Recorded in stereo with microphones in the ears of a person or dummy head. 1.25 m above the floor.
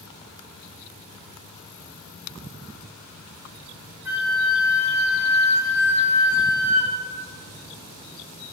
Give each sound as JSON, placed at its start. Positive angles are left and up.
{"t": 4.0, "sound": "a flute", "side_deg": -15, "distance_m": 1.1}